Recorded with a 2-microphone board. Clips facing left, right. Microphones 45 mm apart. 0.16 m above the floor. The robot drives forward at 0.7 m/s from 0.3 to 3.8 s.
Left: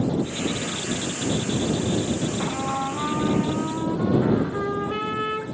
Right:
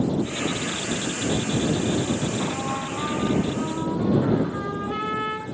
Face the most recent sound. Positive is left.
turn(degrees=15)  # may be behind; listen again after turning